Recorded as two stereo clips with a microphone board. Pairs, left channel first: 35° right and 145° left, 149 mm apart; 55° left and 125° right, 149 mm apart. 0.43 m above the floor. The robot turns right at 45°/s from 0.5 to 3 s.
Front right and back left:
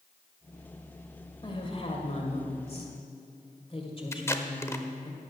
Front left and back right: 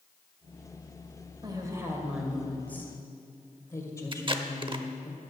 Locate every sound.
1.4 s a woman speaking: 75° right, 1.9 m; by 5.1 s 5° right, 1.9 m
4.1 s tape being pulled: 95° right, 0.7 m